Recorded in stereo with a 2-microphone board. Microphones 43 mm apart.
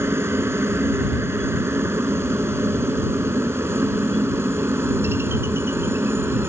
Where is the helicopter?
70° right (ahead or behind).